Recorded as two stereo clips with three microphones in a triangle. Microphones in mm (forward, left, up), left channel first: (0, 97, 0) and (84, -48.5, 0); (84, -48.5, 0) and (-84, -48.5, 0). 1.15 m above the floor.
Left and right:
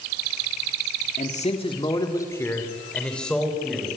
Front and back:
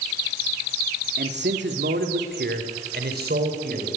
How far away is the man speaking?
About 2 m.